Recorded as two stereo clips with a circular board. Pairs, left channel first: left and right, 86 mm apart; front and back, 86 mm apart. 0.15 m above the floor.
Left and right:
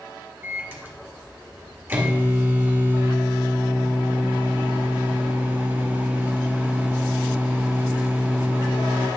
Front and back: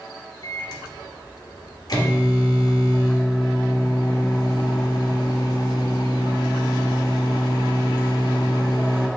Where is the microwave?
30° right, 1.6 m.